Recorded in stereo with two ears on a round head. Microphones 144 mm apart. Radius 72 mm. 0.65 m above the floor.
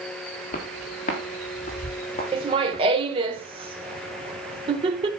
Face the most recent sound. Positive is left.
turn(degrees=-35)  # may be behind; listen again after turning